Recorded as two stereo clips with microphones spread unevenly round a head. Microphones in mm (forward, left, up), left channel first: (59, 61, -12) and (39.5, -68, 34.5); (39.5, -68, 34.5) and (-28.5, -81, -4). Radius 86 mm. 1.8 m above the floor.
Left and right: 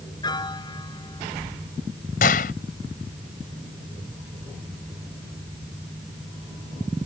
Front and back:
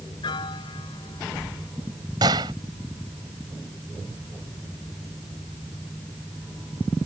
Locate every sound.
0.2 s a piano: 20° left
2.2 s a gunshot: 115° left